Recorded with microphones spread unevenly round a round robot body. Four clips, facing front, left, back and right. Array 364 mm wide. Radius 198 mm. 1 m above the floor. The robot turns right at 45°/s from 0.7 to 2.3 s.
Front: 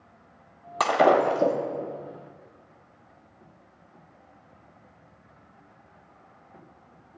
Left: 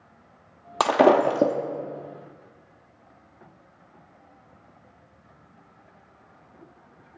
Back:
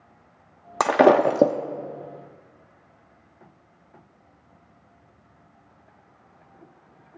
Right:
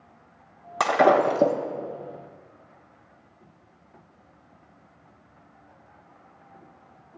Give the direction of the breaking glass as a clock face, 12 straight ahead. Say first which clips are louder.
Left 1 dB, back 3 dB; 7 o'clock.